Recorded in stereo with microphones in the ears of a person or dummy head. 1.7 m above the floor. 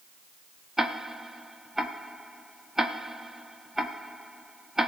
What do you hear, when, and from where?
0.8 s ticking: 5° right (ahead or behind), 1.2 m